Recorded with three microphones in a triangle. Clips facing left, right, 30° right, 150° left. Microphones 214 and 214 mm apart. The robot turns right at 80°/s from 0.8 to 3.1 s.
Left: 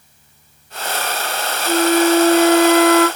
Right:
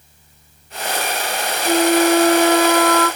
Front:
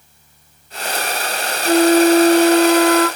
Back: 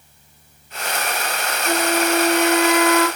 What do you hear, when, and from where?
1.6 s a flute: 80° right, 1.6 m; by 3.1 s 30° left, 1.6 m